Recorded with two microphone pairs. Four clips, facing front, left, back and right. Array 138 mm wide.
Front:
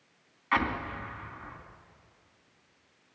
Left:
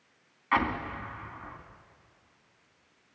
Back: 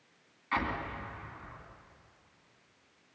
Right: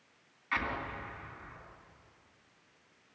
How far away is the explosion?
About 2 m.